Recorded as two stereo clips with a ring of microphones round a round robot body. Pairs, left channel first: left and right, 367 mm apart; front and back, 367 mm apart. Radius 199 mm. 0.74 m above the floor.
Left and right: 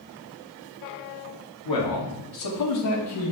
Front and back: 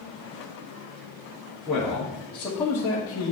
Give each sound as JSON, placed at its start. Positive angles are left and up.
{"t": 1.6, "sound": "a man speaking", "azimuth_deg": 90, "distance_m": 2.0}